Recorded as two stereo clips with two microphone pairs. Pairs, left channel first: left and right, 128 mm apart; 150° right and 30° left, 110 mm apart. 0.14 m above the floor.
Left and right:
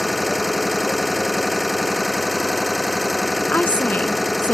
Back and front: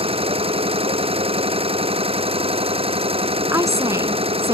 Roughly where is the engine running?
Ahead.